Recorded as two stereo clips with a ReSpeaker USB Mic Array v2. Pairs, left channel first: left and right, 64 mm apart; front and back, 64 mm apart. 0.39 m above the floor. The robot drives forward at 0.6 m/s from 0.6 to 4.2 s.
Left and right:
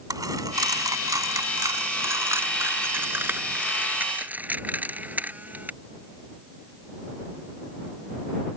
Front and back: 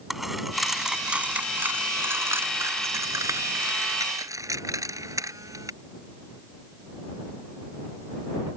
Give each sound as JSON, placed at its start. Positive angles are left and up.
{"t": 0.1, "sound": "a dropped coin", "azimuth_deg": -95}